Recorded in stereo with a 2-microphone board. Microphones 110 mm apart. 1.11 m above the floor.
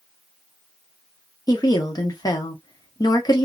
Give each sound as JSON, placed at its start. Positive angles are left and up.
{"t": 1.5, "sound": "a woman speaking", "side_deg": 40, "distance_m": 0.9}